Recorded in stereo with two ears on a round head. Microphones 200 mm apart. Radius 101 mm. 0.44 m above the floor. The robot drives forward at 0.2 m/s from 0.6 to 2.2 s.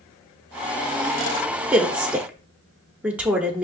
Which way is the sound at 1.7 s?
5° right (ahead or behind).